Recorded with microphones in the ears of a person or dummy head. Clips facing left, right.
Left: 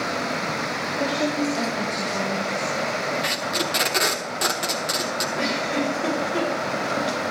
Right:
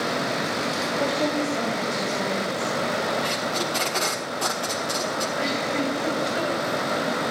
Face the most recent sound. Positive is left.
turn(degrees=65)  # may be behind; listen again after turning